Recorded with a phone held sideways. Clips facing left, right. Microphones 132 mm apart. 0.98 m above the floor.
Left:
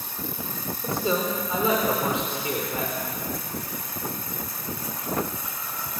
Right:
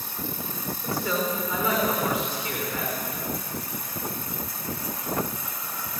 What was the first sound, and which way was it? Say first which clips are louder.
A man speaking: left 2 dB; 25° left (ahead or behind).